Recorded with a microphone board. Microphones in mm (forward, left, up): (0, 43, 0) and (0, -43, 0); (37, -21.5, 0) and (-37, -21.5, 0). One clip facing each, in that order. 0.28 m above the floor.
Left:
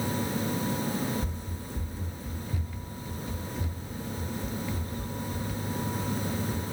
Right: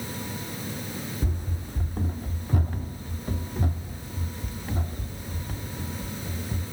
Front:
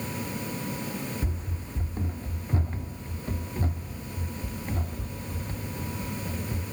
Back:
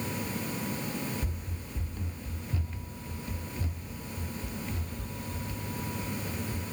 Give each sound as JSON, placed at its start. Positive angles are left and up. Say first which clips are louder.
{"t": 1.2, "sound": "running footsteps", "louder": "right 3 dB, front 4 dB", "azimuth_deg": -65}